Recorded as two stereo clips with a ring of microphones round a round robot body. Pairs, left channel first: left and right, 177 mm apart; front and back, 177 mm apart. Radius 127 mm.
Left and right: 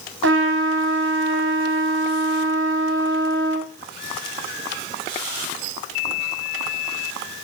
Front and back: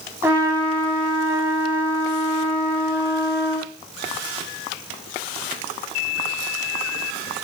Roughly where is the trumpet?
Right.